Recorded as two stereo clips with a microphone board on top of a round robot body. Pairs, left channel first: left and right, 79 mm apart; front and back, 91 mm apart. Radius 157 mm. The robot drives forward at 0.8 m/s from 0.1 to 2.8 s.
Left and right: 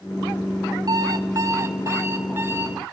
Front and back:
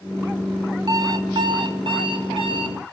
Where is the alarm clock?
130° right, 1.4 m; by 2.8 s 155° right, 2.5 m.